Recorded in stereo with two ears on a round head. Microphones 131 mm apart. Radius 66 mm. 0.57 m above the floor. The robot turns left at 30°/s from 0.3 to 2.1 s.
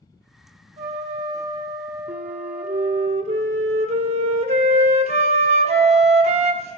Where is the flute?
50° right (ahead or behind), 0.9 m; by 6.8 s 45° right (ahead or behind), 0.9 m.